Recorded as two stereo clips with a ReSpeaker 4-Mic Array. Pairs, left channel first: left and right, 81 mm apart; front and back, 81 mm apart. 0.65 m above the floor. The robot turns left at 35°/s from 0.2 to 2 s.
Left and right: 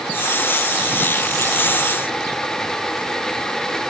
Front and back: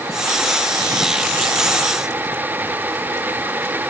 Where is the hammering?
I don't hear hammering.